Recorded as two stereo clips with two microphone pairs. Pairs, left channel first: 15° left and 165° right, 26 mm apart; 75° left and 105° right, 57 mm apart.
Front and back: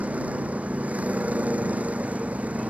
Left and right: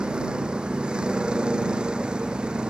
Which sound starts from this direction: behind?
A vehicle, at 0.0 s.